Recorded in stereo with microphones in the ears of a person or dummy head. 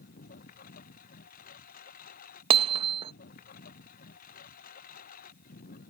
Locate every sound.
0.0 s a lawn mower: 60° left (ahead or behind)
2.5 s hammering: 25° right (ahead or behind)